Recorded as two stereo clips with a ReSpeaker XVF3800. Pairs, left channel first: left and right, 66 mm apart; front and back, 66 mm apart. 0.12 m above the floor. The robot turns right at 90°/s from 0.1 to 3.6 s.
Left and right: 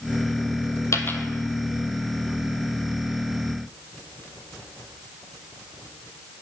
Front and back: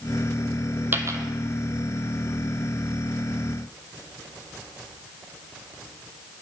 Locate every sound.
0.9 s a dropped coin: 125° left, 0.6 m; by 1.2 s 155° left, 0.6 m